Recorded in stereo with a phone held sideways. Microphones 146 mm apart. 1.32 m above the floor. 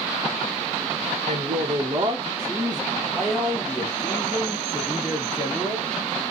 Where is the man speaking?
65° right (ahead or behind), 1.1 m; by 5.9 s 40° left (ahead or behind), 2.5 m.